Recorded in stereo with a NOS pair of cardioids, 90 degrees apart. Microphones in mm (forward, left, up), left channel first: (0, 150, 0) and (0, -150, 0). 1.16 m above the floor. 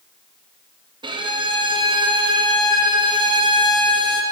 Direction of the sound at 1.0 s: 15° right.